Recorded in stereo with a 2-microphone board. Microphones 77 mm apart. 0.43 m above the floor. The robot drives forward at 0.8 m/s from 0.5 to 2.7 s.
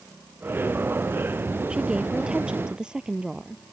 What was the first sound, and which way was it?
A woman speaking, 10° right (ahead or behind).